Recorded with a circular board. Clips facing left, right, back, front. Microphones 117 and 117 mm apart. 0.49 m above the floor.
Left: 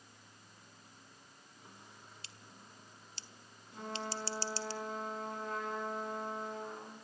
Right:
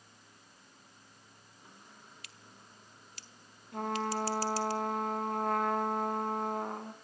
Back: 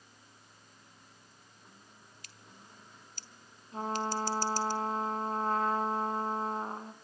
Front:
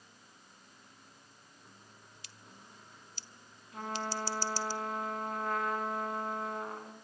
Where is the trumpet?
120° right, 2.5 m.